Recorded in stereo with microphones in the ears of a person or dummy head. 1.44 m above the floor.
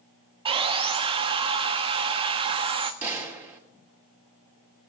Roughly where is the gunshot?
Centre.